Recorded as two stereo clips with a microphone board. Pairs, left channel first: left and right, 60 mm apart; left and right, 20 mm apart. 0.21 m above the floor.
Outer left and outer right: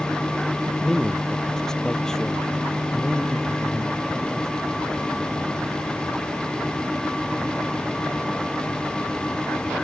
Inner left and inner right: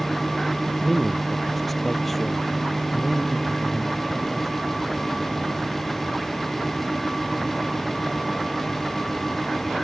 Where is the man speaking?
10° left (ahead or behind).